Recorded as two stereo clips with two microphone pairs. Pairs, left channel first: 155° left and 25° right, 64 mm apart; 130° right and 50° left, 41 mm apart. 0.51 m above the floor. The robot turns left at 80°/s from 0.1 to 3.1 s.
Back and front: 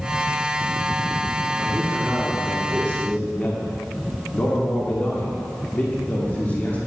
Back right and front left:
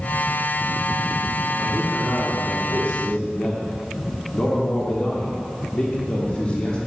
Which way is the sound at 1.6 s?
40° right.